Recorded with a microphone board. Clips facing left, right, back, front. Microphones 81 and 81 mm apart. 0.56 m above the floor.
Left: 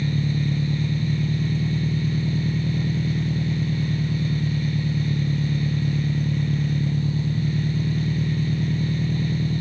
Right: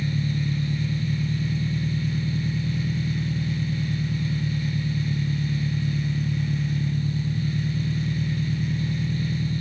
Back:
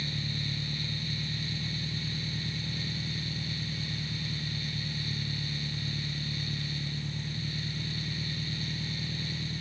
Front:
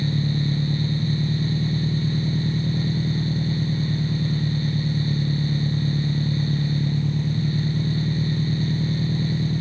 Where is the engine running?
45° left.